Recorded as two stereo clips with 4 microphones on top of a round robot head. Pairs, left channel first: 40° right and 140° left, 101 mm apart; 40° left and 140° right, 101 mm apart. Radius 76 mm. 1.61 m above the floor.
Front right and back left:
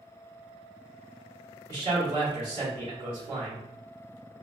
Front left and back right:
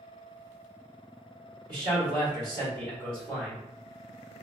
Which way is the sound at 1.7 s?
Straight behind.